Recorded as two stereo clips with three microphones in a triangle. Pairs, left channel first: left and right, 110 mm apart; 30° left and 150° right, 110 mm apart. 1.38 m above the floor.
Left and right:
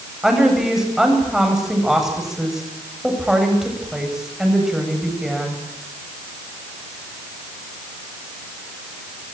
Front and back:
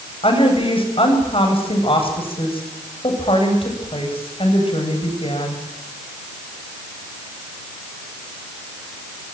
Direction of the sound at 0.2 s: 5° right.